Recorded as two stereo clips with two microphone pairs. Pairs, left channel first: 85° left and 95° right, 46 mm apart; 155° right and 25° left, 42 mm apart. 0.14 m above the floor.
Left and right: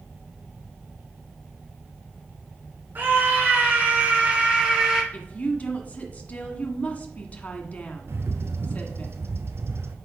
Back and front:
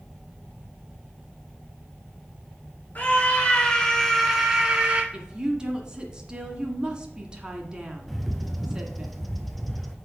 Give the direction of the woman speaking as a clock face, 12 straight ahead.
9 o'clock.